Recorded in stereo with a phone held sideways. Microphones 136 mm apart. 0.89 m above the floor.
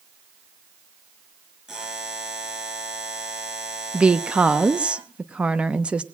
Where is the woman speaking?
10° right (ahead or behind), 0.8 m.